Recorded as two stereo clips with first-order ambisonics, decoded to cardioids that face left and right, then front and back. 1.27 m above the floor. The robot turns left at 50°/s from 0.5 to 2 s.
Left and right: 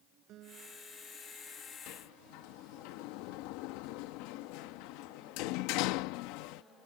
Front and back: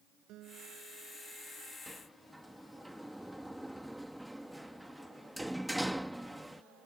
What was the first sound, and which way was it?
A guitar, 135° right.